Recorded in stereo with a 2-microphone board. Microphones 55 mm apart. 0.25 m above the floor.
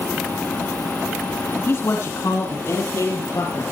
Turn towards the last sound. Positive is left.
turn(degrees=75)  # may be behind; listen again after turning